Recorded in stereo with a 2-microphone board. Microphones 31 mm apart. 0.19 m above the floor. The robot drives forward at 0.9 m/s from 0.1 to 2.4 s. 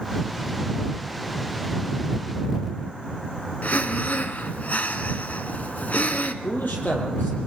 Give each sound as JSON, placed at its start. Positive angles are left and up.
{"t": 3.6, "sound": "breathing", "side_deg": 60, "distance_m": 1.0}
{"t": 6.4, "sound": "a man speaking", "side_deg": 75, "distance_m": 5.5}